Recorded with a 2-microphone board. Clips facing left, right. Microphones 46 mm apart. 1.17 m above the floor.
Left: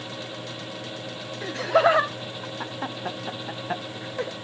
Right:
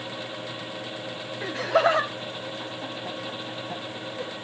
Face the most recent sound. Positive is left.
turn(degrees=70)  # may be behind; listen again after turning